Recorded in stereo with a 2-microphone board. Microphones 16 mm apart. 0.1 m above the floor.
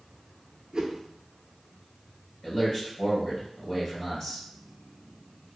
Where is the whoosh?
50° right (ahead or behind), 0.5 m.